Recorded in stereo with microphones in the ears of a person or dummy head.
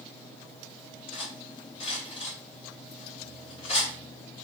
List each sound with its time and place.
1.1 s cutlery clinking: 40° left (ahead or behind), 1.9 m